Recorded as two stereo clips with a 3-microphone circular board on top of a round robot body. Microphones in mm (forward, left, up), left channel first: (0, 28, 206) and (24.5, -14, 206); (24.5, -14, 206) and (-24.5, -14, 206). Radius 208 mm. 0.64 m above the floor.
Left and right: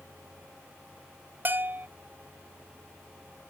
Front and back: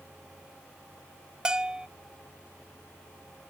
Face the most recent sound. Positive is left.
turn(degrees=-110)